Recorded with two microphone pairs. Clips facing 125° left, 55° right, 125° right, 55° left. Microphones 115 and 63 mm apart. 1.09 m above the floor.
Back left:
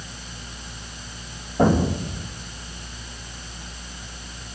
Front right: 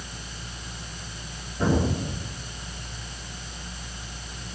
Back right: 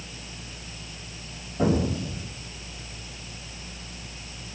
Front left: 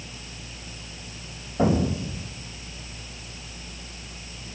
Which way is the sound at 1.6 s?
115° left.